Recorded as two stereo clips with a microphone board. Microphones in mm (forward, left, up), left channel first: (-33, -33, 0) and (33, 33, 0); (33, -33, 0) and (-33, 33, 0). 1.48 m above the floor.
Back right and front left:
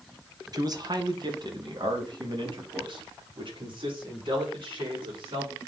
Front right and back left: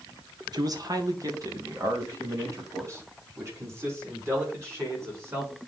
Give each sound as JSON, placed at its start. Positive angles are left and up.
{"t": 0.5, "sound": "a man speaking", "azimuth_deg": 90, "distance_m": 1.3}